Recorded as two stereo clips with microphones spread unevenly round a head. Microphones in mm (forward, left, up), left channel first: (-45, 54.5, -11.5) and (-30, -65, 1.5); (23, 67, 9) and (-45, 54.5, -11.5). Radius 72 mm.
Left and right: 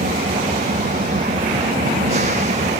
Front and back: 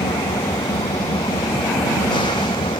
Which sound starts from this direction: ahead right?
An engine running, at 0.0 s.